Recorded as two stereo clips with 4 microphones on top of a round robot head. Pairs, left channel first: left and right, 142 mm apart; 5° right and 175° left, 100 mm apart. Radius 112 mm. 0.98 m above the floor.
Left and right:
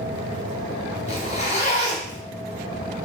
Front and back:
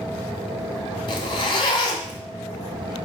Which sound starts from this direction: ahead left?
A zipper, at 1.1 s.